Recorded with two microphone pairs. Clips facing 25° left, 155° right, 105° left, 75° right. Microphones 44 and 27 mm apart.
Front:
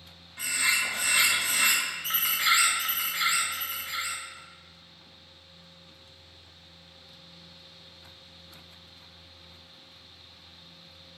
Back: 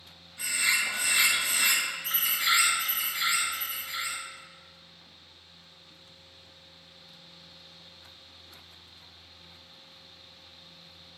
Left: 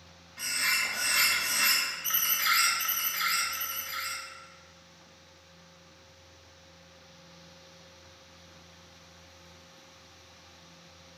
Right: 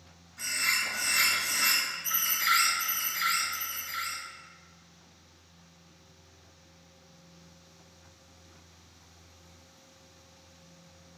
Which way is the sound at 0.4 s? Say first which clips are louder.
Even, even; 55° left.